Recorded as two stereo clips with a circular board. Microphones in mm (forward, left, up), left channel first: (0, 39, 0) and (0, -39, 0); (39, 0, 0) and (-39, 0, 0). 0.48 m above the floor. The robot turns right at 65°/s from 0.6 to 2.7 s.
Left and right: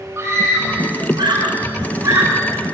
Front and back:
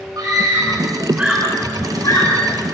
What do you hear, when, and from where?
0.2 s a scream: 140° right, 6.5 m; by 2.3 s 30° right, 6.5 m